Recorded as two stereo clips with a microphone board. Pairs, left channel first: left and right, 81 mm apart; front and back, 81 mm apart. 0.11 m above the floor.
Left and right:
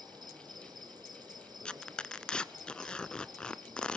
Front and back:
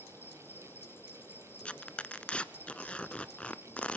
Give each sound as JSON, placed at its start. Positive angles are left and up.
{"t": 0.0, "sound": "an insect", "azimuth_deg": -60, "distance_m": 1.3}
{"t": 1.6, "sound": "tearing paper", "azimuth_deg": 35, "distance_m": 0.6}